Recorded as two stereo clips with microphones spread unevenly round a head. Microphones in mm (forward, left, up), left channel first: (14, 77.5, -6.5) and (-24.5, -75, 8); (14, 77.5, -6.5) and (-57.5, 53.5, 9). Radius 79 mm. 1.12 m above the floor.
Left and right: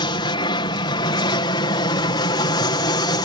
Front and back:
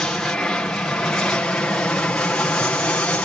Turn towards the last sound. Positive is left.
turn(degrees=60)